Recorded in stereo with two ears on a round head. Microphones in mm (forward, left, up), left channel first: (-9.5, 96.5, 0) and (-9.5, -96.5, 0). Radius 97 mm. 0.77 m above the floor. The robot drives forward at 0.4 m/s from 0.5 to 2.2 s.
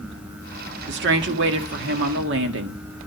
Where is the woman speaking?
55° right (ahead or behind), 1.9 m; by 2.8 s 60° right (ahead or behind), 1.8 m.